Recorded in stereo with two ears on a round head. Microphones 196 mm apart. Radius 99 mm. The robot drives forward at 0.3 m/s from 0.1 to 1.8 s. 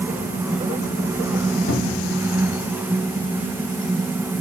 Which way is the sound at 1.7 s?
50° left (ahead or behind).